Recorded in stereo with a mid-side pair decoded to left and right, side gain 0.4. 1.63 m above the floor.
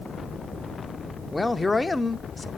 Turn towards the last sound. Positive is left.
turn(degrees=25)